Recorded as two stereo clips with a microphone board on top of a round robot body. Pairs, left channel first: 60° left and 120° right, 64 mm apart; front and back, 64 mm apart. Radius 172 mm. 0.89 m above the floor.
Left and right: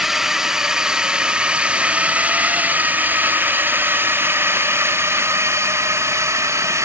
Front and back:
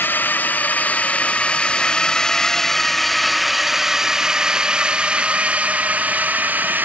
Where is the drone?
40° right; by 6.8 s 130° right.